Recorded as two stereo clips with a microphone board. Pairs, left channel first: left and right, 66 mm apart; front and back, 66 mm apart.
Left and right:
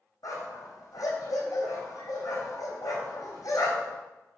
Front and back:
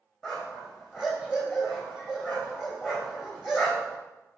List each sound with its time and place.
0.2 s a dog barking: 95° left, 2.5 m